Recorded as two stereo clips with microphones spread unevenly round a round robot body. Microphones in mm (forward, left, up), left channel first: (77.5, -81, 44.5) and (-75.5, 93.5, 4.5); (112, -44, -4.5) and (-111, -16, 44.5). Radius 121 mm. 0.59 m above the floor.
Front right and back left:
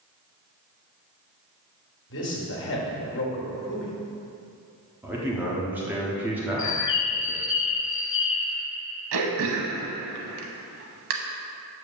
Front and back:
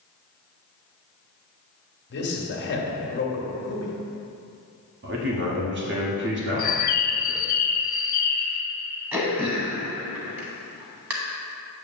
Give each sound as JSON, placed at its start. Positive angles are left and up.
{"t": 2.1, "sound": "a man speaking", "azimuth_deg": -10, "distance_m": 1.5}
{"t": 5.0, "sound": "a man speaking", "azimuth_deg": -165, "distance_m": 1.1}
{"t": 6.6, "sound": "a bird", "azimuth_deg": -65, "distance_m": 0.5}
{"t": 9.1, "sound": "throat clearing", "azimuth_deg": 95, "distance_m": 0.9}